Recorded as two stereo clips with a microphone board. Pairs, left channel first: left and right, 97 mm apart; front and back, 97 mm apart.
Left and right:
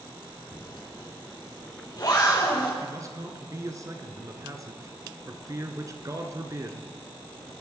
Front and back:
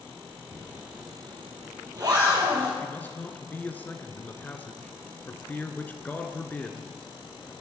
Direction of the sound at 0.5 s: 135° left.